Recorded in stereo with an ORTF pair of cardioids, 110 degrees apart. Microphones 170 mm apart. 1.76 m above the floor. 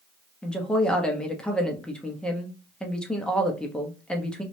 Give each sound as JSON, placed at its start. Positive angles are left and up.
{"t": 0.4, "sound": "a woman speaking", "azimuth_deg": 5, "distance_m": 0.9}